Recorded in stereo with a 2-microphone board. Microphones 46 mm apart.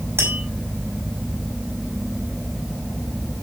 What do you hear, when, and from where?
0.2 s tapping: 70° right (ahead or behind), 5 m